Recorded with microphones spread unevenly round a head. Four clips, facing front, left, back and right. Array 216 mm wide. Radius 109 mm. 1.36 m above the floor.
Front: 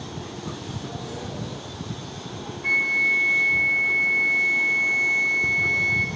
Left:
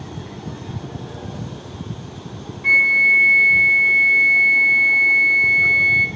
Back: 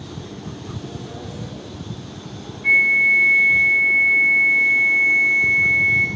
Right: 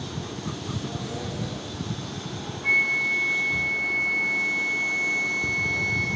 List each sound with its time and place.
2.6 s a flute: 115° left, 0.7 m